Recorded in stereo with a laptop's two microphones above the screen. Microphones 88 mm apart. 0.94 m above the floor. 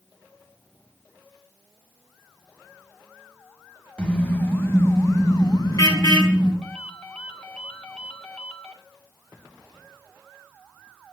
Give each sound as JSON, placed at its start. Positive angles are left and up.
{"t": 4.0, "sound": "a car horn", "side_deg": 15, "distance_m": 3.0}
{"t": 6.6, "sound": "a ringtone", "side_deg": 10, "distance_m": 1.8}